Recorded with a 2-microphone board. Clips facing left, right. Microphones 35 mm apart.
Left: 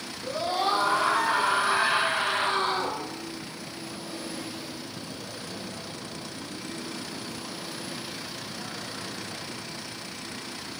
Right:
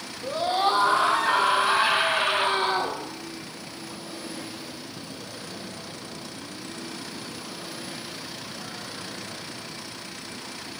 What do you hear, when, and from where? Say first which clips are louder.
0.2 s a scream: right 3 dB; 50° right (ahead or behind), 5 m; by 3.0 s 60° right (ahead or behind), 3 m